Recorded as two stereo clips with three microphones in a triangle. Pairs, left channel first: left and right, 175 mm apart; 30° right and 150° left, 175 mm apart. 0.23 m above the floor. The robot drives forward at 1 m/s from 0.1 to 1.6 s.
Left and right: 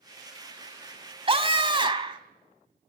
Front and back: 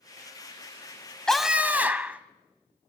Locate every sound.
1.3 s a scream: 115° right, 1.2 m; by 2.2 s 135° right, 1.3 m